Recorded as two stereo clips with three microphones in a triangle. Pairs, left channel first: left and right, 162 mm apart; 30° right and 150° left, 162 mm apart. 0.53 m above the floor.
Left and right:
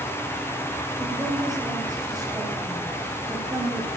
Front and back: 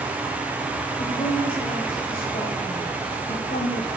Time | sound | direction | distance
1.0 | a woman speaking | 25° right | 3.5 m